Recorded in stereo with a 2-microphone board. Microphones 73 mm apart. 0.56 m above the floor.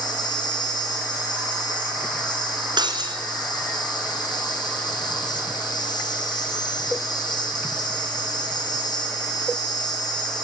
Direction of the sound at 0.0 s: 80° left.